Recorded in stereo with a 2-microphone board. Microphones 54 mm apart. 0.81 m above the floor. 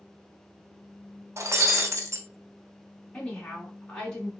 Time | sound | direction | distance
1.4 | breaking glass | 65° right (ahead or behind) | 0.8 m
3.1 | a woman speaking | 15° left (ahead or behind) | 1.3 m